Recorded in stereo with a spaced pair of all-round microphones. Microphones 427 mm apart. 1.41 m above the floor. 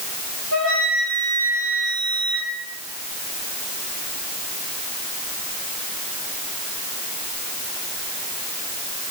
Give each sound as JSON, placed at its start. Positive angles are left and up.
{"t": 0.5, "sound": "a flute", "side_deg": -35, "distance_m": 4.5}